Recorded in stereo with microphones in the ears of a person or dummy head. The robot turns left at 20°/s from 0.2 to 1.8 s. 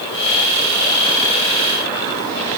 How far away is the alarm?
I don't hear an alarm.